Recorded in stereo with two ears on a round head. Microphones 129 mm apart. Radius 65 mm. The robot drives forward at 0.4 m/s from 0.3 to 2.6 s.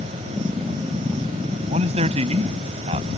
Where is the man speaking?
50° right (ahead or behind); by 3.2 s 45° right (ahead or behind).